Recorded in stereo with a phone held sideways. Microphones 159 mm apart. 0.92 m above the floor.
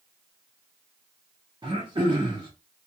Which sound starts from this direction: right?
Throat clearing, at 1.6 s.